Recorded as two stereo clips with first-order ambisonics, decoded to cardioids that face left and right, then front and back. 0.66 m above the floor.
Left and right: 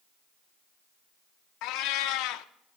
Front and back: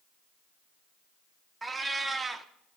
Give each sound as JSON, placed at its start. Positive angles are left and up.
{"t": 1.6, "sound": "a cat meowing", "azimuth_deg": 100, "distance_m": 0.5}